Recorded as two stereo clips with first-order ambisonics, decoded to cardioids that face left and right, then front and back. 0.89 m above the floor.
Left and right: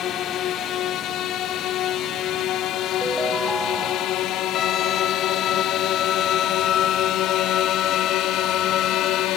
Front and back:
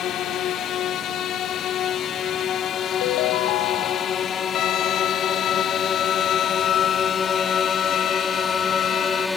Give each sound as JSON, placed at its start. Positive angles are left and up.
{"t": 0.0, "sound": "a drone", "azimuth_deg": 45}
{"t": 3.0, "sound": "a ringtone", "azimuth_deg": 0}
{"t": 4.5, "sound": "a violin", "azimuth_deg": 40}